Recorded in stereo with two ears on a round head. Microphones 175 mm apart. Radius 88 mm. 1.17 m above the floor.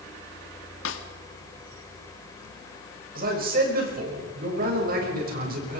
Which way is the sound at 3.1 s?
50° right (ahead or behind).